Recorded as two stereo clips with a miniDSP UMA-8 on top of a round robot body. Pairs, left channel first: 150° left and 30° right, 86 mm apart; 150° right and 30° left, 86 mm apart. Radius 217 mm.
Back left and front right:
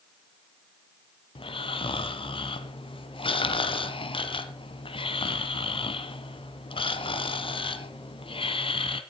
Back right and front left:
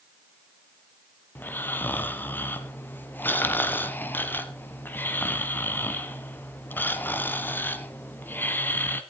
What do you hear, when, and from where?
1.4 s snoring: 140° left, 1.7 m